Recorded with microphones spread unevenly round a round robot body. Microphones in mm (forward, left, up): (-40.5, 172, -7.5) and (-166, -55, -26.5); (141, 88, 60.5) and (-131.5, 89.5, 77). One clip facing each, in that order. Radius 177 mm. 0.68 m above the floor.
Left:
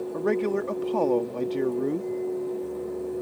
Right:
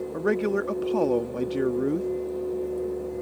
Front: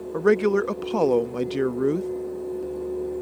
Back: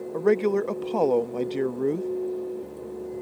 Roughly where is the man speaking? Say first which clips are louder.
Right 1 dB, front 2 dB; ahead right.